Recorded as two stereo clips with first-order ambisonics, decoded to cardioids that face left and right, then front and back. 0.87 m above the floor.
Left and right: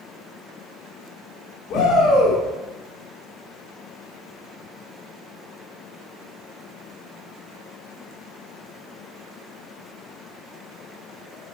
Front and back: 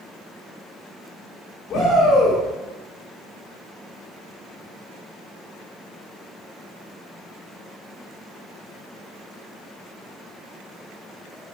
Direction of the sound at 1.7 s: 60° left.